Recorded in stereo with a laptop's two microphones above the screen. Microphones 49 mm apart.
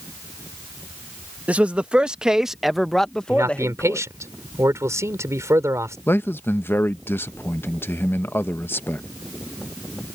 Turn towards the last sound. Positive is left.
turn(degrees=45)  # may be behind; listen again after turning